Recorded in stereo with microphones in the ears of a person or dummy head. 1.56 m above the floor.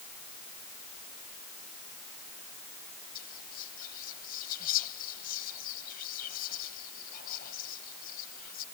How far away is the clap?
No clap in this recording.